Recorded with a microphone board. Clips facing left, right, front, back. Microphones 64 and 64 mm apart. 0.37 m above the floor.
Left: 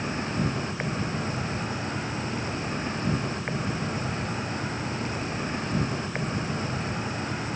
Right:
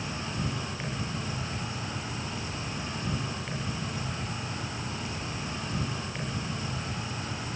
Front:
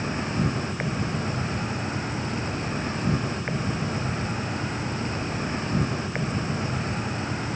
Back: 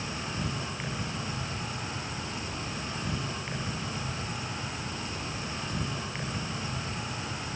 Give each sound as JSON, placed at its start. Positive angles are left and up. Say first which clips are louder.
{"t": 0.0, "sound": "an insect", "louder": "left 6 dB, front 8 dB", "azimuth_deg": 45, "distance_m": 2.5}